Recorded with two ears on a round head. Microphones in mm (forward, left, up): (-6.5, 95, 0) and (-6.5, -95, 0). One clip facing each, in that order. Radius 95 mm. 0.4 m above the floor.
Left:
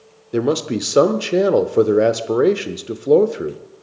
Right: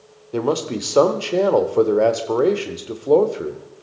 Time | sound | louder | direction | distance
0.3 | a man speaking | left 3 dB | 20° left (ahead or behind) | 0.8 m